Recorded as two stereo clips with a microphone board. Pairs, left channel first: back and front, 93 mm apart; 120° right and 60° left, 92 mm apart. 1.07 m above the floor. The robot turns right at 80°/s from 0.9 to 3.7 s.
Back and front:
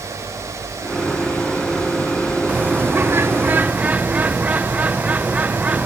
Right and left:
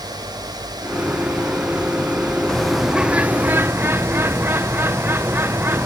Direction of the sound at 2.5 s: 50° right.